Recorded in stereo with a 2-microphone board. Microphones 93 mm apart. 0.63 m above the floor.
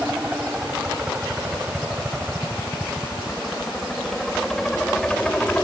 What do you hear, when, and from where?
0.0 s a helicopter: 15° right (ahead or behind); by 5.6 s 15° left (ahead or behind)